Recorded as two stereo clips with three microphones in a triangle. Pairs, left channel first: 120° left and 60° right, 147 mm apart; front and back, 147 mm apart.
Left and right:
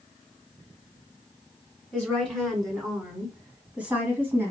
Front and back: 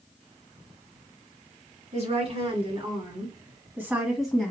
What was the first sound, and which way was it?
A woman speaking, 155° right.